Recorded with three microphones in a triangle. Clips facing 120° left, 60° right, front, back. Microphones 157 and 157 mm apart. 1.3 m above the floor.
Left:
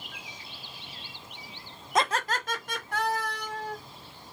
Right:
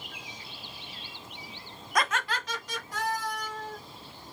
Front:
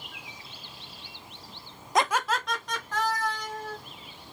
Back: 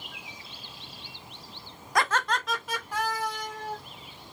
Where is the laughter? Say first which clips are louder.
Left 3 dB, front 1 dB; 65° left, 0.6 m; by 3.8 s 110° left, 1.9 m.